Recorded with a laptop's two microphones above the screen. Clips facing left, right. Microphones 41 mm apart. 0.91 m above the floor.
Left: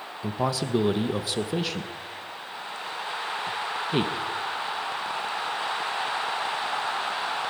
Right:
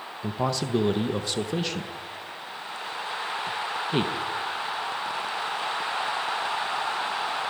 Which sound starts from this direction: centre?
A man speaking, at 0.2 s.